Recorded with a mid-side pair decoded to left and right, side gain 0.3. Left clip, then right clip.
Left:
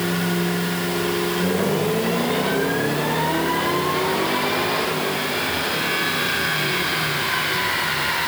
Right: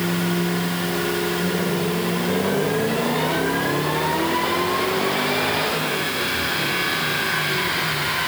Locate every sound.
Only background noise.